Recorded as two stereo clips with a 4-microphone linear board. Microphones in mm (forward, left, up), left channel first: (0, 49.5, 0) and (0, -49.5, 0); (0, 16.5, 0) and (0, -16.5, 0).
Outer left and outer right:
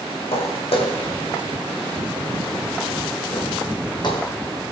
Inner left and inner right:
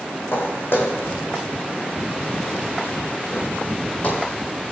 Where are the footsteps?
75° left (ahead or behind), 2.5 m; by 4.3 s 45° left (ahead or behind), 2.5 m.